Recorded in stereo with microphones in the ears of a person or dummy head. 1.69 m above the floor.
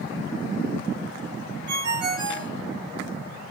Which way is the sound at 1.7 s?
50° right (ahead or behind).